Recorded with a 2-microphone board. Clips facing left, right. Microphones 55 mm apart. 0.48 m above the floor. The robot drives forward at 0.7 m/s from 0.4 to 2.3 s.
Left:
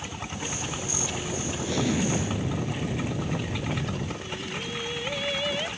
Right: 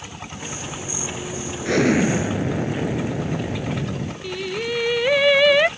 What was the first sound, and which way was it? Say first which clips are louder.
An explosion: right 9 dB; 65° right (ahead or behind).